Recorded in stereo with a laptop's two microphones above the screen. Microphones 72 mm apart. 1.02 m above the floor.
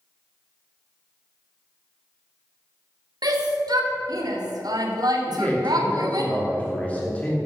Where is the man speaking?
20° left (ahead or behind), 2.5 m.